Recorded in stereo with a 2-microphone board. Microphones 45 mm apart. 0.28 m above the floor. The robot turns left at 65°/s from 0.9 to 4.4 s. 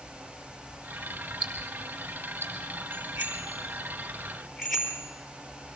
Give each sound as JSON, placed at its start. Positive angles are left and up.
{"t": 1.4, "sound": "ticking", "side_deg": 5, "distance_m": 6.5}
{"t": 2.9, "sound": "a bicycle bell", "side_deg": -80, "distance_m": 5.0}